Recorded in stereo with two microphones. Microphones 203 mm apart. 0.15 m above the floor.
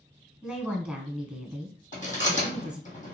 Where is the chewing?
40° left (ahead or behind), 3 m.